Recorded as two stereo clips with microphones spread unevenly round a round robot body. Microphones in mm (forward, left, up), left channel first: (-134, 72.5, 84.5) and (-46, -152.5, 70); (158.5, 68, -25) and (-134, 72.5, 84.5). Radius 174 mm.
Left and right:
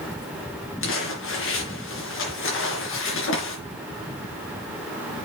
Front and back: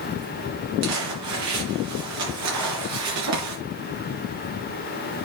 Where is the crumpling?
145° left, 3.5 m.